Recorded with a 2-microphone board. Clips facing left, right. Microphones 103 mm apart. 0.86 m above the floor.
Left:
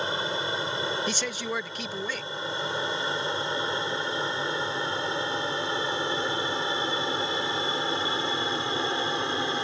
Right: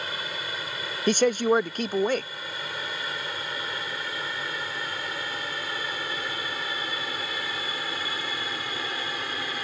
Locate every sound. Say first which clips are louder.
0.0 s an aircraft: left 5 dB; 30° left (ahead or behind); by 9.6 s 25° left (ahead or behind)
1.1 s a man speaking: right 10 dB; 50° right (ahead or behind)